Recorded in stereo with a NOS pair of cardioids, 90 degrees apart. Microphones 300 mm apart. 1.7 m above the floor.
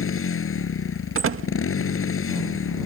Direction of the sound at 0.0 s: 45° left.